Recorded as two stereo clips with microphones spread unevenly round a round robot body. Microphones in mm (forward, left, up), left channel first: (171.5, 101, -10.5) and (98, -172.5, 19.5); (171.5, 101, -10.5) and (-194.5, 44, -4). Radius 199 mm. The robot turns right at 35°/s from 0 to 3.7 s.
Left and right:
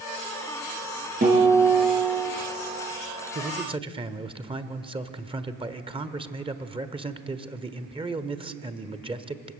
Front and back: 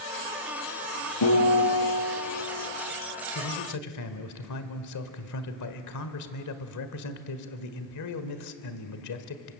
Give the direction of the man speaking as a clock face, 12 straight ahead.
1 o'clock.